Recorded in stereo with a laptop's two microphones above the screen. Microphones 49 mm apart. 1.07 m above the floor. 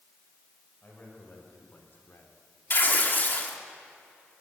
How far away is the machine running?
No machine running in this recording.